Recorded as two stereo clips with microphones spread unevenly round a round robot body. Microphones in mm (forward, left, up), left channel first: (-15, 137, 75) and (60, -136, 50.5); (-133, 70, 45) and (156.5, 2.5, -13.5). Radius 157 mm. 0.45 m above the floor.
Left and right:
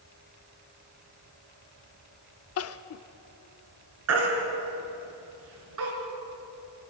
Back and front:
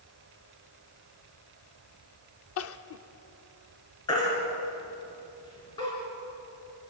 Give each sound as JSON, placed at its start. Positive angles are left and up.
{"t": 2.6, "sound": "crying", "azimuth_deg": 125, "distance_m": 0.7}
{"t": 4.1, "sound": "a baby crying", "azimuth_deg": -115, "distance_m": 3.5}